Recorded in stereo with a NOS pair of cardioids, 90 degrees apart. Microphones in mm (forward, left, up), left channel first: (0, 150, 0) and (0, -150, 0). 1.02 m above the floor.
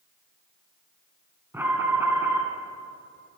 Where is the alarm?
5° right, 7 m.